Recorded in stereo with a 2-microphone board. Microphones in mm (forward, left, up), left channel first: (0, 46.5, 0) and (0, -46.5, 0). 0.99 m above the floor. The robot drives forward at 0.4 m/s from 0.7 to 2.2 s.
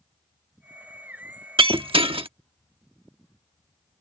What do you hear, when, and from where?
1.6 s breaking glass: 70° right (ahead or behind); by 2.3 s 80° right